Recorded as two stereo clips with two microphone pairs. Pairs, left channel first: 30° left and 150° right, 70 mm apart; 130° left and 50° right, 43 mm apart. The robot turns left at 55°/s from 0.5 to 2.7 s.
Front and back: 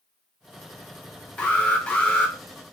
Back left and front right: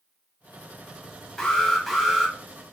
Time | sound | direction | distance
1.4 | an alarm | 70° left | 0.7 m